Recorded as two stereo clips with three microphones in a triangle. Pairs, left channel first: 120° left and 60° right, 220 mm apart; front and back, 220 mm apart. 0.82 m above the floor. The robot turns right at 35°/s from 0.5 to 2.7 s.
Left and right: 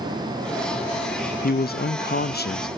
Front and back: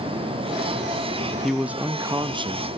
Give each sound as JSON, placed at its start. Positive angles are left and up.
{"t": 1.4, "sound": "a man speaking", "azimuth_deg": 90, "distance_m": 0.5}